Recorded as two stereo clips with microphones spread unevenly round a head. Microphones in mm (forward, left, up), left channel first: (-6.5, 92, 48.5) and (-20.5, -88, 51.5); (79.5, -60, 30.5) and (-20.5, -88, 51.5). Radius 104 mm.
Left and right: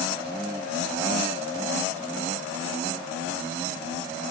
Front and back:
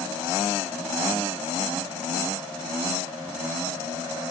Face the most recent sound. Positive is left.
No sound to turn to.